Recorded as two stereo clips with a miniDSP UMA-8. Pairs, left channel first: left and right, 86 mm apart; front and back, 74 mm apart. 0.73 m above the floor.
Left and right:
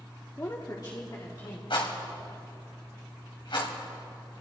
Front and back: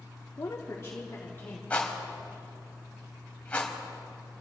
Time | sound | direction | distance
0.4 | a woman speaking | 35° left | 1.1 m
1.7 | a rattle | 70° left | 2.5 m